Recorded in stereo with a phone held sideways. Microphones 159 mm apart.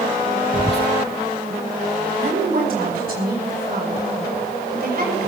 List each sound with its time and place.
0.5 s whispering: 35° left (ahead or behind), 0.8 m
2.2 s a woman speaking: 65° right (ahead or behind), 5 m